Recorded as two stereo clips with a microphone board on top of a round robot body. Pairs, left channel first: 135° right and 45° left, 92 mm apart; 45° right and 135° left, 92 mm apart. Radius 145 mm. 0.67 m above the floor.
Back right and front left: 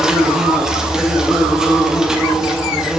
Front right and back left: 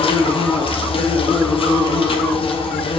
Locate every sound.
0.0 s an insect: 40° right, 1.0 m